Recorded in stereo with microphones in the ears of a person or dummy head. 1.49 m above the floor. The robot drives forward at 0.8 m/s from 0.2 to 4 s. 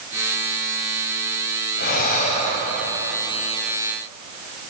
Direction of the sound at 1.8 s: 55° left (ahead or behind).